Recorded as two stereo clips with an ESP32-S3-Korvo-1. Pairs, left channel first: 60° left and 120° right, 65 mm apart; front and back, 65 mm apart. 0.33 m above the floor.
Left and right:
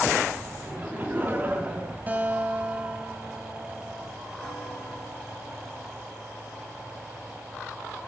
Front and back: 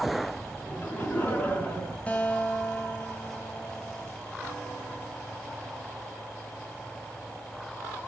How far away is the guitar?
About 1.9 m.